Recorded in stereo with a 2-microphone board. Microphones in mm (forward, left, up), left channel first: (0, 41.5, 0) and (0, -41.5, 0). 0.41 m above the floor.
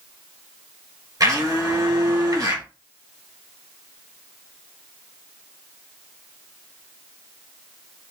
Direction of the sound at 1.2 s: 50° right (ahead or behind).